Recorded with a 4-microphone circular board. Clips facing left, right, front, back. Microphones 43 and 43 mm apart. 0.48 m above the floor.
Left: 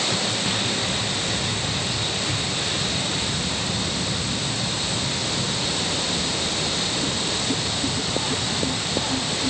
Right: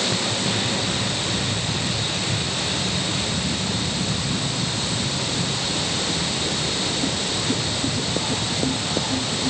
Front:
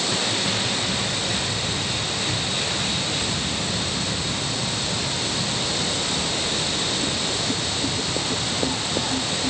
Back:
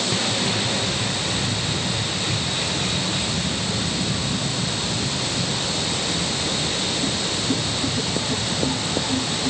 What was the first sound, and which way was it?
Only background noise.